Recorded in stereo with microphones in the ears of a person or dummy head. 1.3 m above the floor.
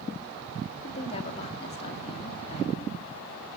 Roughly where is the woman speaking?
Left.